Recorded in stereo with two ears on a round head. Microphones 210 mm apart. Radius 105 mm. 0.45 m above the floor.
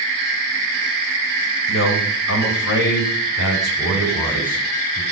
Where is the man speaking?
60° left (ahead or behind), 2.5 m; by 5.0 s 35° left (ahead or behind), 5 m.